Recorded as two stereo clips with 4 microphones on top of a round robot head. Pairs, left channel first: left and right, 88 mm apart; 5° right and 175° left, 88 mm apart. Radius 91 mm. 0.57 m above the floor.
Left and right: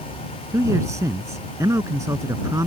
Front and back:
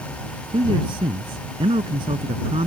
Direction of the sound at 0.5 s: 145° right.